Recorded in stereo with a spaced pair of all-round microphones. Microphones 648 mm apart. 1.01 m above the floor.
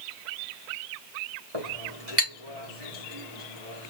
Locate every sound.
1.5 s a clink: 45° right (ahead or behind), 2.5 m